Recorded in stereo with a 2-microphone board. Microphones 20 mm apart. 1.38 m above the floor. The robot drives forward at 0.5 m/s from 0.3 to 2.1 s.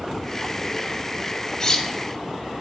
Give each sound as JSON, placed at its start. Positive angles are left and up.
{"t": 1.6, "sound": "cutlery clinking", "side_deg": 30, "distance_m": 0.6}